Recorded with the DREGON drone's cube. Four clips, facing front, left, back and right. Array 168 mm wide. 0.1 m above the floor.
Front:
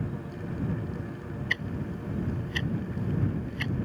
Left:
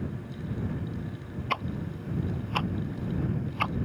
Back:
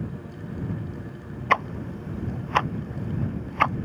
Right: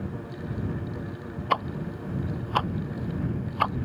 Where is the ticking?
155° right.